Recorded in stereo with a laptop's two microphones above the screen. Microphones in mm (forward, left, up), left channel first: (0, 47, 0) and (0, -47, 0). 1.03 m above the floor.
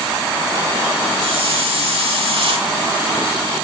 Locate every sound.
1.2 s a hiss: 80° right, 4 m